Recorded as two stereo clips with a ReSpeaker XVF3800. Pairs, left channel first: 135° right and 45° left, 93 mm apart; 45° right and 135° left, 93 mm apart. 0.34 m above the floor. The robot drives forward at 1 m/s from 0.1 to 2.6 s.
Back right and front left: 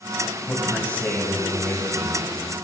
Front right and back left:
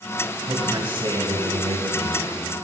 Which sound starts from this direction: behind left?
A man speaking, at 0.5 s.